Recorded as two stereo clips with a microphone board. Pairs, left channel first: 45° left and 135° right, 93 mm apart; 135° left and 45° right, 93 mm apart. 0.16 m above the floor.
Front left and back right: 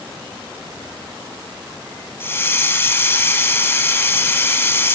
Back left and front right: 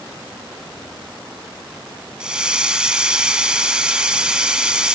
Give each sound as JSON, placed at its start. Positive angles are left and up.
{"t": 2.2, "sound": "a hiss", "azimuth_deg": 25, "distance_m": 0.8}